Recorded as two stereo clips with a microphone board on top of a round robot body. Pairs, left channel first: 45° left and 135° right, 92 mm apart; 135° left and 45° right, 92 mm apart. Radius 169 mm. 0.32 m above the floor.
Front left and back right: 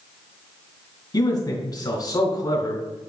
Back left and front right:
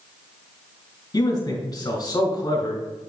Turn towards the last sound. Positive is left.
turn(degrees=85)